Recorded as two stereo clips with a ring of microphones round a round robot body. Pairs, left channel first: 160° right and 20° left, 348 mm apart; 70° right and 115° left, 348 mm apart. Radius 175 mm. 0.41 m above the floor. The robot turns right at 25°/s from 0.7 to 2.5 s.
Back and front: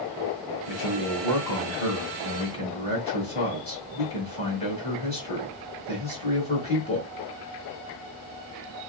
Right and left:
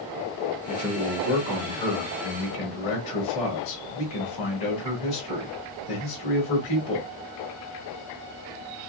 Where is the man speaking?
130° right, 2 m; by 7.1 s 85° right, 2 m.